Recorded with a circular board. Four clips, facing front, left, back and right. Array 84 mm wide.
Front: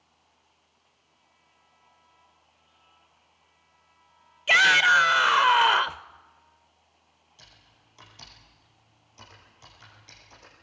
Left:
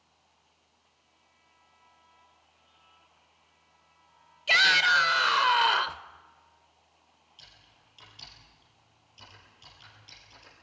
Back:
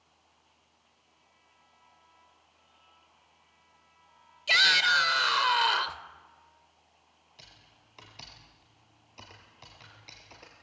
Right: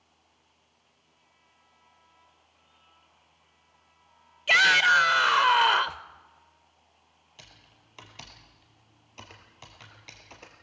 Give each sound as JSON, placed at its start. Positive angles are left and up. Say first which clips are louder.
{"t": 4.5, "sound": "a shout", "louder": "right 2 dB, front 6 dB", "azimuth_deg": -25, "distance_m": 0.9}
{"t": 7.4, "sound": "typing on a keyboard", "louder": "right 5 dB, even", "azimuth_deg": -105, "distance_m": 4.5}